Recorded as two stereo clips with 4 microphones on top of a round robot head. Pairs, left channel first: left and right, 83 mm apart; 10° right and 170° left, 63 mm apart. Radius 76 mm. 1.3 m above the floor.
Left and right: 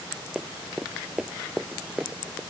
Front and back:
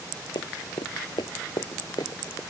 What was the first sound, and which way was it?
Running footsteps, straight ahead.